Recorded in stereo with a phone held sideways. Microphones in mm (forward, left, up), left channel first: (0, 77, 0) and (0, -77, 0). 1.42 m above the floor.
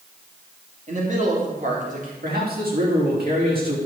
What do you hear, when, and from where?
0.9 s a man speaking: 50° right (ahead or behind), 3 m; by 2.1 s 55° right (ahead or behind), 3.5 m
2.2 s a man speaking: 70° right (ahead or behind), 4 m